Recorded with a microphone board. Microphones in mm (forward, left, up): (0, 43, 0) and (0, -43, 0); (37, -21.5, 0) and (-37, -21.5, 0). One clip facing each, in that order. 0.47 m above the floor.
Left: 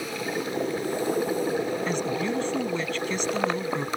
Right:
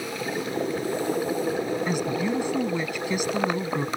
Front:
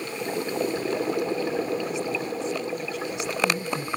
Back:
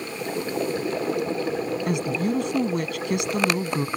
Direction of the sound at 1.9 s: 170° right.